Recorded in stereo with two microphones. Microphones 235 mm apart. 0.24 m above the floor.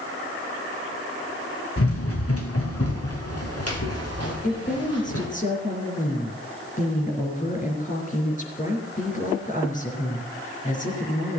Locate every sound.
1.8 s running footsteps: 65° left (ahead or behind), 2.5 m; by 5.2 s 80° left, 5.5 m
4.4 s a woman speaking: 30° left (ahead or behind), 4.5 m